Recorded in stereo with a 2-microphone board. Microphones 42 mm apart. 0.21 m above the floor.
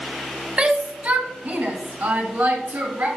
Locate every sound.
0.6 s a shout: 30° right (ahead or behind), 1.3 m; by 3.1 s 65° right (ahead or behind), 3 m